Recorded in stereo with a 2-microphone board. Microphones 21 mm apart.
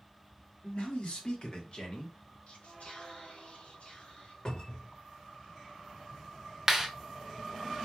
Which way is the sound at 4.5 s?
45° left (ahead or behind).